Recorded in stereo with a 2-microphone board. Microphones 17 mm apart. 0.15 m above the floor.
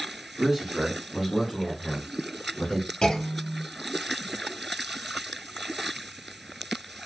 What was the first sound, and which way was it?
A man speaking, 30° right (ahead or behind).